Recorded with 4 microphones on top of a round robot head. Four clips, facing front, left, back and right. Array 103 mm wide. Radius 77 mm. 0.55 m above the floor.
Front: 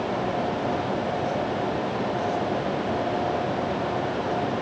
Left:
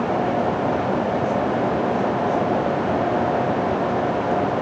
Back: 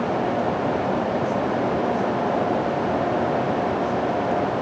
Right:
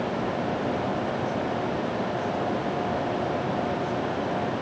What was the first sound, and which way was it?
Only background noise.